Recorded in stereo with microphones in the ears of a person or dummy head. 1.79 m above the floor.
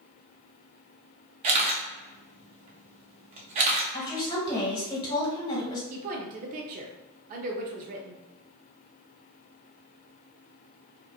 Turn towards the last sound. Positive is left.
turn(degrees=-45)  # may be behind; listen again after turning